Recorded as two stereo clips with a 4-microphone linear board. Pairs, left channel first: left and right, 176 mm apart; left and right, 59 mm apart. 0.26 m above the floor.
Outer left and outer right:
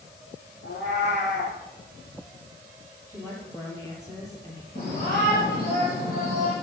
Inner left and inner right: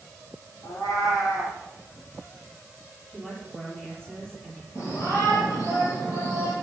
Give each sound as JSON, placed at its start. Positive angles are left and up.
{"t": 0.6, "sound": "a cat meowing", "side_deg": 85, "distance_m": 6.5}
{"t": 3.1, "sound": "a woman speaking", "side_deg": 20, "distance_m": 7.5}
{"t": 4.8, "sound": "a shout", "side_deg": 55, "distance_m": 6.0}